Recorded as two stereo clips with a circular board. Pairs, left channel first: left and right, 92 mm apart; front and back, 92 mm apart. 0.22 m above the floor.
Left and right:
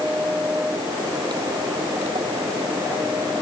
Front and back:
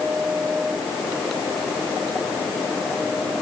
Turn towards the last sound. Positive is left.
No sound to turn to.